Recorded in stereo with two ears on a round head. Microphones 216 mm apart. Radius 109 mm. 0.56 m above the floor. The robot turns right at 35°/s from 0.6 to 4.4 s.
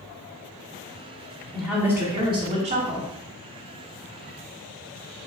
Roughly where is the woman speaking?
Behind.